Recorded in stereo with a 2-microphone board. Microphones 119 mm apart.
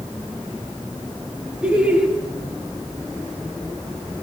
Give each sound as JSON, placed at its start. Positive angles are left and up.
{"t": 1.6, "sound": "laughter", "side_deg": -10, "distance_m": 2.0}